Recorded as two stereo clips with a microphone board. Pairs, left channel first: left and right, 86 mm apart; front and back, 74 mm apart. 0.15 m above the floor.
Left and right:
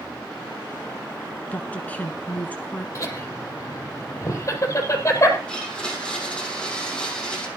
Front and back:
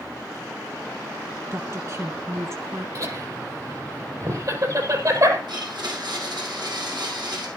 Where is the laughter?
145° left, 5 m.